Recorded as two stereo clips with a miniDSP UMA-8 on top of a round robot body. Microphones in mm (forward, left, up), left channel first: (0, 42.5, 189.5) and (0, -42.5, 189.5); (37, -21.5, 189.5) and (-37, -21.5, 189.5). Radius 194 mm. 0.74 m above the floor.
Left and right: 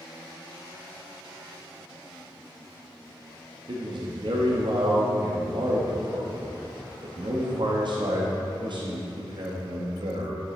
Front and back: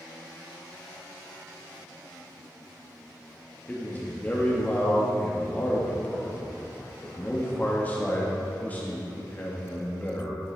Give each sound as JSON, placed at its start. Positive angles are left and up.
{"t": 3.7, "sound": "a man speaking", "azimuth_deg": -70, "distance_m": 1.4}